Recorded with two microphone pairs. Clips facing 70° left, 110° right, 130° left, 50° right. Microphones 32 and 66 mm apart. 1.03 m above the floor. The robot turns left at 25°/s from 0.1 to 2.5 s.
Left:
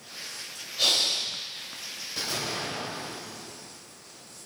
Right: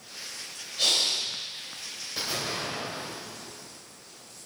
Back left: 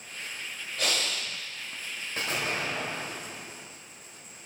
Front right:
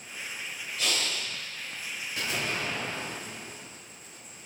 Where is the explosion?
Straight behind, 1.4 m; by 3.8 s 170° left, 1.4 m.